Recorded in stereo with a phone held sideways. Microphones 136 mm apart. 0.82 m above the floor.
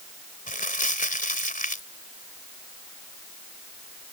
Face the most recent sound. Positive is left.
turn(degrees=75)  # may be behind; listen again after turning